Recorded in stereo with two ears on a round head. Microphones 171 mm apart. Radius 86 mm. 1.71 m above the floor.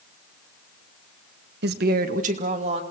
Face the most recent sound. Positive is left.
turn(degrees=-30)  # may be behind; listen again after turning